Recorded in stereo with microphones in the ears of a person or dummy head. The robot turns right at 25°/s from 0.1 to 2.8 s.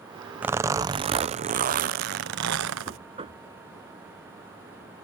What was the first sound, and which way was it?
A zipper, 170° right.